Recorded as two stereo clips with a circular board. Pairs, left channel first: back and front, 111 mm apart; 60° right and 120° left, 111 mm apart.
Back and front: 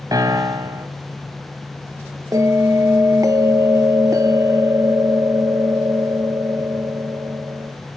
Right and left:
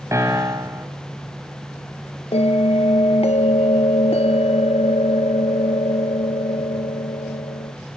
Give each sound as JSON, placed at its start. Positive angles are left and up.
{"t": 0.1, "sound": "a piano", "azimuth_deg": 55, "distance_m": 2.5}
{"t": 2.3, "sound": "a bell", "azimuth_deg": -55, "distance_m": 1.3}